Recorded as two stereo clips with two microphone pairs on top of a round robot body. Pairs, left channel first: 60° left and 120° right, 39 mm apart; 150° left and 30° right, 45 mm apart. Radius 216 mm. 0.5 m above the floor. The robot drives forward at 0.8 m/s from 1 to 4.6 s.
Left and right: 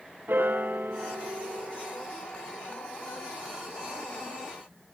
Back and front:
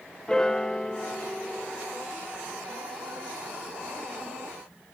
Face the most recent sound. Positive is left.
turn(degrees=-170)